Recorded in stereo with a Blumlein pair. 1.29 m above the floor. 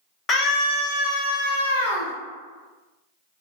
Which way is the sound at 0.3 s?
20° left.